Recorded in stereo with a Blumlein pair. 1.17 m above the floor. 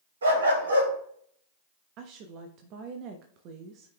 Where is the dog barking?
70° right, 3 m.